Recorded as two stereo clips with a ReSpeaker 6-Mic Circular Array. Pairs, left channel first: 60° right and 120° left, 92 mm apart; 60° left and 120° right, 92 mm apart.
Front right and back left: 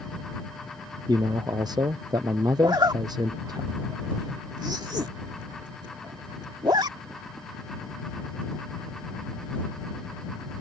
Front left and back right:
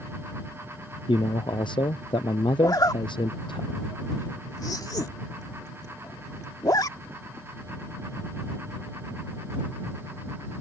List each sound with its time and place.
1.1 s a man speaking: 80° left
2.6 s a zipper: 95° left